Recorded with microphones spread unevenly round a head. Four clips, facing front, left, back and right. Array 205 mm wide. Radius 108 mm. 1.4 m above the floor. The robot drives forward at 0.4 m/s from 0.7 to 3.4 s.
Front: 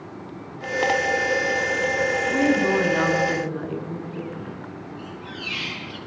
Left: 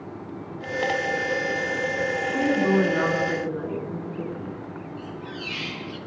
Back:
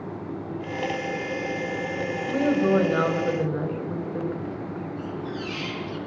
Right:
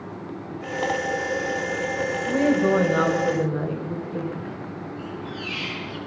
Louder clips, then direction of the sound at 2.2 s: Right 3 dB, back 1 dB; 120° right.